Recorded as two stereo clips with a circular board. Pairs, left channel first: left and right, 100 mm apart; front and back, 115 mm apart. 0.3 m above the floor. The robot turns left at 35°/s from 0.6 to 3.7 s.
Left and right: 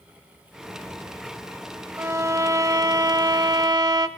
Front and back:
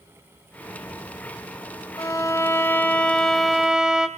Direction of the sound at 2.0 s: 40° right.